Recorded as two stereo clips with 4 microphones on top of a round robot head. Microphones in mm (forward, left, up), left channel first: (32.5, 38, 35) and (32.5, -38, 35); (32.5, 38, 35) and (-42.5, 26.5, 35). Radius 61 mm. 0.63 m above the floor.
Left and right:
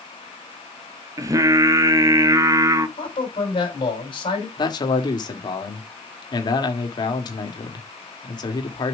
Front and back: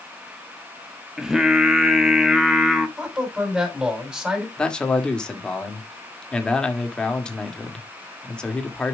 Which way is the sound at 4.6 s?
85° left.